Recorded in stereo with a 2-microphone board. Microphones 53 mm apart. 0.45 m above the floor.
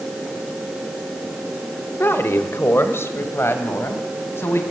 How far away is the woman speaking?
About 1.8 m.